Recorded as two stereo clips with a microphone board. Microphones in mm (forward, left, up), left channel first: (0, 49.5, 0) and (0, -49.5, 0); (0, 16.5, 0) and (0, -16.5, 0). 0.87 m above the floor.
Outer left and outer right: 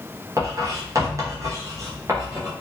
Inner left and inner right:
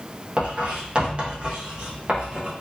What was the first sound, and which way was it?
Writing, 35° right (ahead or behind).